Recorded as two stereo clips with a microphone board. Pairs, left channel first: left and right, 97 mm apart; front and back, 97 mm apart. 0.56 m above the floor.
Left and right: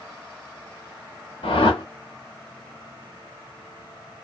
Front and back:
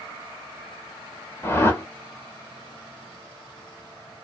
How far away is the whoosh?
About 0.7 m.